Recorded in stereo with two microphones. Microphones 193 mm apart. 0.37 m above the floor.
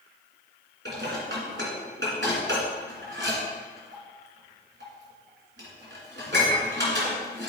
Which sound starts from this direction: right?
Dishes clattering, at 0.8 s.